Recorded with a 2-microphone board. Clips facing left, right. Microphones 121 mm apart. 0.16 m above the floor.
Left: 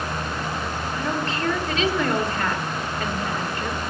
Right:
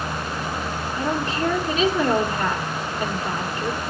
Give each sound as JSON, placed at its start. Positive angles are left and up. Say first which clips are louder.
{"t": 0.9, "sound": "a woman speaking", "louder": "right 3 dB", "side_deg": -15, "distance_m": 3.0}